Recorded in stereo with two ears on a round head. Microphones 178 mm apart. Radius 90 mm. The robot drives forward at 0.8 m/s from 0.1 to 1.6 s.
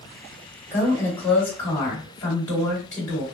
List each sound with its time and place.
0.7 s a woman speaking: 15° left (ahead or behind), 1.3 m; by 3.2 s 10° left (ahead or behind), 2 m